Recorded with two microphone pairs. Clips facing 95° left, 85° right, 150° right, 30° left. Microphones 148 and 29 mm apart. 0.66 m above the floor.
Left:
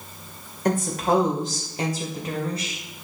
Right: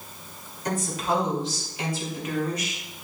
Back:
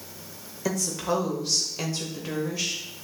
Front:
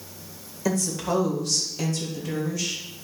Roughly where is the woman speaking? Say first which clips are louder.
Left 5 dB, front 1 dB; behind left.